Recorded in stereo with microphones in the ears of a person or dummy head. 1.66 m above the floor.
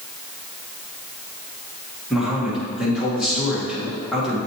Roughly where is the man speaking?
Centre.